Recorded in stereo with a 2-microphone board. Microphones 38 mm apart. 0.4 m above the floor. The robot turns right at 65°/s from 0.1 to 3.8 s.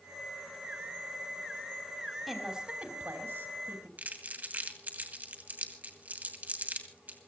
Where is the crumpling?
45° right (ahead or behind), 2 m.